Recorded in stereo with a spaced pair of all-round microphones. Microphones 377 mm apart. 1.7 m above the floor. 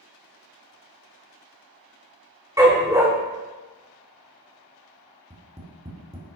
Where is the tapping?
15° right (ahead or behind), 2 m.